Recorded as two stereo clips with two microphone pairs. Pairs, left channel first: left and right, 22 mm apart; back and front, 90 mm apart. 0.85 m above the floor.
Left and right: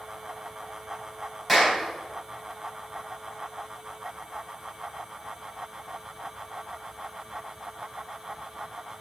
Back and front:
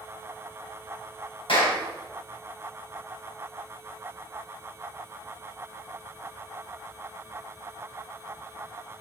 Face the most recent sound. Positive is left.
turn(degrees=180)